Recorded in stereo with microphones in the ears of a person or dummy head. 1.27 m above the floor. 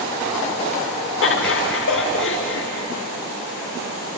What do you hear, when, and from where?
1.2 s laughter: 55° left (ahead or behind), 1.0 m